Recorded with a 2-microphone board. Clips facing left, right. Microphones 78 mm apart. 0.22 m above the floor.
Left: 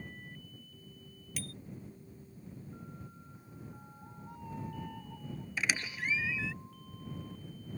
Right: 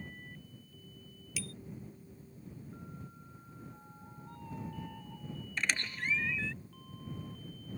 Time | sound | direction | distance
1.4 | a bicycle bell | 50° left (ahead or behind) | ?
3.4 | a cat meowing | 10° left (ahead or behind) | ?
5.6 | a squeak | 5° left (ahead or behind) | ?